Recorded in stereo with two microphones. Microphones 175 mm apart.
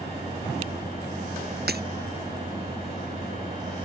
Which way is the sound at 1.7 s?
65° right (ahead or behind).